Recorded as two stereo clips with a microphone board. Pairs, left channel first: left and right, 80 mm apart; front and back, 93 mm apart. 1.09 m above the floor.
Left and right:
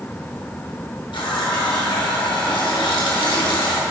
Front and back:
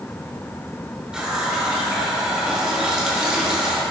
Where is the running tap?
100° left, 1.2 m.